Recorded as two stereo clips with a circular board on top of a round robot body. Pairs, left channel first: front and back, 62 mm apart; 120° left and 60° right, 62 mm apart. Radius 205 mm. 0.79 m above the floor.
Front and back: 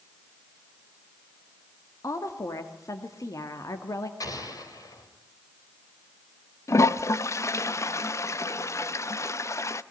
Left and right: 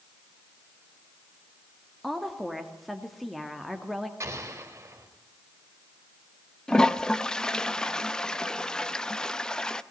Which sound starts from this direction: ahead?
An explosion, at 4.2 s.